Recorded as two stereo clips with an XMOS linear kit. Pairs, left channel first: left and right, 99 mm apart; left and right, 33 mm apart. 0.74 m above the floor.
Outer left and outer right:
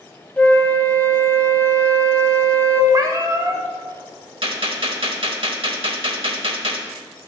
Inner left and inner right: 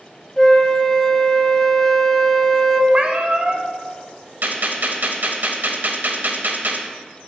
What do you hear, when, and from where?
0.4 s a flute: 10° left (ahead or behind), 0.6 m
2.9 s a cat meowing: 40° right (ahead or behind), 0.7 m
4.4 s a gunshot: 70° right (ahead or behind), 0.9 m